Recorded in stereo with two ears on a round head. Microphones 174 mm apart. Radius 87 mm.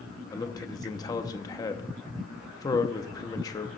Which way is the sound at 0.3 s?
20° left (ahead or behind).